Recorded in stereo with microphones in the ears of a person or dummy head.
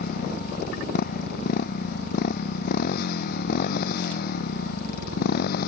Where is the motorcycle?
55° left (ahead or behind).